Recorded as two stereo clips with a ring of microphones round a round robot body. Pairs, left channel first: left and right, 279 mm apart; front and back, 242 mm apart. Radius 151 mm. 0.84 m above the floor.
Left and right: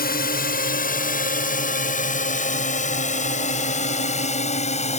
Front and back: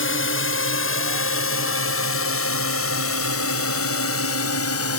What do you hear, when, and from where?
0.0 s a drone: 30° left; by 5.0 s 25° left